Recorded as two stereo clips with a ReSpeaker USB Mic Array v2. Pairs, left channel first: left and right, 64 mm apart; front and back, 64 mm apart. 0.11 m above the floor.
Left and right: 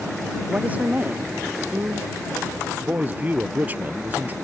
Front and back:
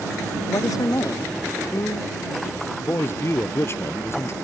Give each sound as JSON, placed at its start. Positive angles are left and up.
{"t": 0.5, "sound": "a woman speaking", "azimuth_deg": -25}
{"t": 2.8, "sound": "a man speaking", "azimuth_deg": -35}